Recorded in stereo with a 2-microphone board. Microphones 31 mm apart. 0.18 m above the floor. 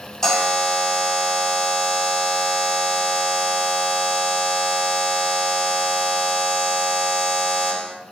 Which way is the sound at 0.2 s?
10° left (ahead or behind).